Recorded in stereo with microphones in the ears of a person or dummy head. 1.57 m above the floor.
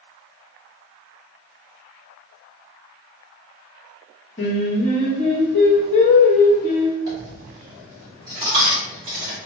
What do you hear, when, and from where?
4.4 s singing: 20° left (ahead or behind), 1.0 m
7.1 s a dropped coin: 20° right (ahead or behind), 0.8 m